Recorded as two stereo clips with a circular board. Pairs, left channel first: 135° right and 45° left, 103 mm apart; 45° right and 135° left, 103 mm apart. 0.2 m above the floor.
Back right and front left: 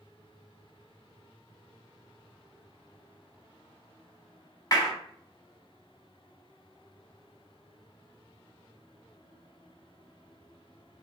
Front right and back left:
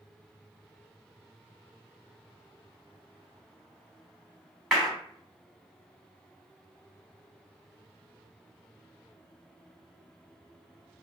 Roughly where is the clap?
Behind right.